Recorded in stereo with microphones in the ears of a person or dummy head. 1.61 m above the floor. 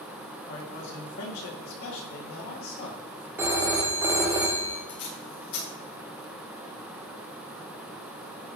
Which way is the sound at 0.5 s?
80° left.